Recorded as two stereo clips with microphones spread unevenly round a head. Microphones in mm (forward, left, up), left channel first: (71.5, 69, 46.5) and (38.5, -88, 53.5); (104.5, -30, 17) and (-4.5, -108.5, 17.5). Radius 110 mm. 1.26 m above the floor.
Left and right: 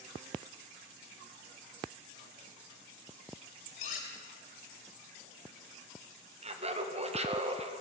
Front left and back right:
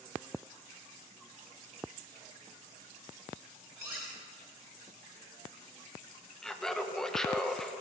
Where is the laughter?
50° right, 1.4 m.